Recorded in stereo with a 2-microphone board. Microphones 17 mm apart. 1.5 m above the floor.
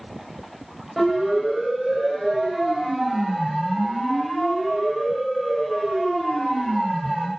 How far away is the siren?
About 8.5 m.